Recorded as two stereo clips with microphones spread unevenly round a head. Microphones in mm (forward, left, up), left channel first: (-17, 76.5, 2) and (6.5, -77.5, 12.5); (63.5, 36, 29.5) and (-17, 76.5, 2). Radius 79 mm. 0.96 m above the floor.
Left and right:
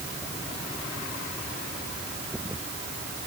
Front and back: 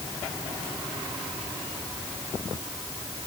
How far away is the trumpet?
I don't hear a trumpet.